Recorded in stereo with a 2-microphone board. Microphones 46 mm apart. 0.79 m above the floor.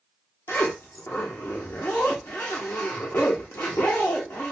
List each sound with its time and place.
0.5 s a zipper: 80° left, 1.1 m